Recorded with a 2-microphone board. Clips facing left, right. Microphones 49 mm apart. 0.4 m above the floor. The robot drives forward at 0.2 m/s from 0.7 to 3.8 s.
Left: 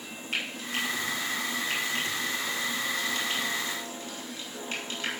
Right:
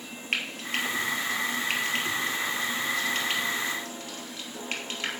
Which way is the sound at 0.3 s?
50° right (ahead or behind).